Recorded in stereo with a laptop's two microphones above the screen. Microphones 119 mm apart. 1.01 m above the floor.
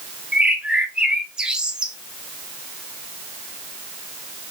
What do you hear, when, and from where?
0.3 s a bird: 5° right (ahead or behind), 0.6 m